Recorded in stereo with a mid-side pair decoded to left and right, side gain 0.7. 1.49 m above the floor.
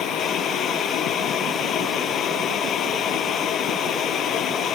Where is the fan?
50° left.